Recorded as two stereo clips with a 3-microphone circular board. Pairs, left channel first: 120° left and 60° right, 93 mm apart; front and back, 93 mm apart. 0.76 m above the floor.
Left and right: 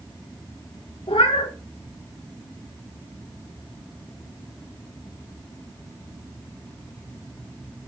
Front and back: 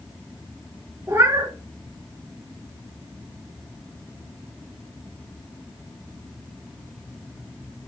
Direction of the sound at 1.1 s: 120° left.